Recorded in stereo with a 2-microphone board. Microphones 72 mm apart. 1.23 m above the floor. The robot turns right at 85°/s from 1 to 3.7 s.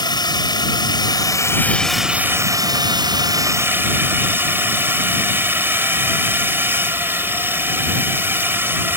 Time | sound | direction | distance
0.0 | a drone | 100° left | ?